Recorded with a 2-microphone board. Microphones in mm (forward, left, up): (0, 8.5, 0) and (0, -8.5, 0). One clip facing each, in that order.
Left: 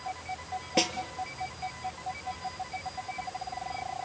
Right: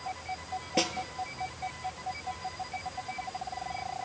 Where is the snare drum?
15° left (ahead or behind), 1.5 m.